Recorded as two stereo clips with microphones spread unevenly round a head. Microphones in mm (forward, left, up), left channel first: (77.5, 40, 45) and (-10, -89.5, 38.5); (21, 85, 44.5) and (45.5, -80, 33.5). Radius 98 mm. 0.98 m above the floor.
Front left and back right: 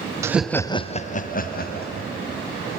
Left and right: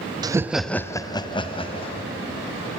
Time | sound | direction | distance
0.2 | laughter | 85° right | 0.7 m